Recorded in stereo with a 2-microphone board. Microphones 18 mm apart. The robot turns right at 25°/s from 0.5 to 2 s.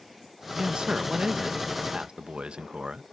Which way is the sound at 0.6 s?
130° right.